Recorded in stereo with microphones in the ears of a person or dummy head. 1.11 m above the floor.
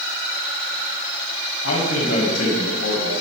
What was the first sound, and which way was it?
A man speaking, 70° left (ahead or behind).